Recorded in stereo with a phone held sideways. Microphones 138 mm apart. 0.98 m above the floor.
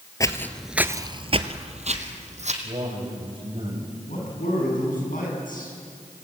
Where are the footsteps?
25° left (ahead or behind), 1.3 m; by 2.5 s 55° right (ahead or behind), 3 m.